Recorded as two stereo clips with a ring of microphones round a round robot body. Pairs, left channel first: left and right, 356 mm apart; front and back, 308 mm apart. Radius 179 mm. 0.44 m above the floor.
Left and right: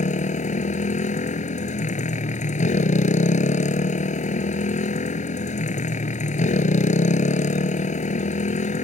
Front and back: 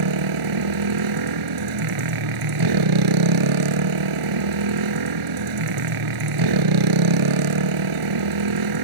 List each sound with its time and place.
0.0 s a motorcycle: 160° left